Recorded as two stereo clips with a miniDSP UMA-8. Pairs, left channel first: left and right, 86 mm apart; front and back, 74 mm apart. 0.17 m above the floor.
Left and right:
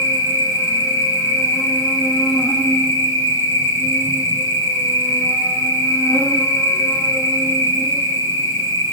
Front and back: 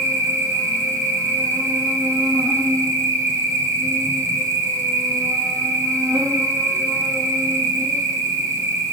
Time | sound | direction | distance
0.0 | an insect | 150° left | 1.2 m